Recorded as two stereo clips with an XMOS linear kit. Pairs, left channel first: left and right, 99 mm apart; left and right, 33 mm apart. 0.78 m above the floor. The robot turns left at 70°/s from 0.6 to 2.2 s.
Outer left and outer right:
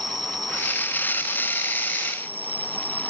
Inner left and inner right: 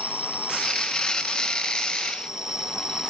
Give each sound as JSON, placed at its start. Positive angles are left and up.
{"t": 0.0, "sound": "an insect", "azimuth_deg": -45}